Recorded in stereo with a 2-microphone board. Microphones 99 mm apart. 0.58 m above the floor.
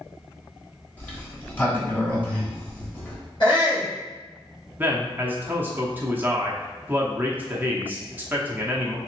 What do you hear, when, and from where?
1.0 s a sliding door: 20° left (ahead or behind), 1.1 m
3.4 s a shout: 50° left (ahead or behind), 2.0 m
4.8 s a man speaking: 20° right (ahead or behind), 0.8 m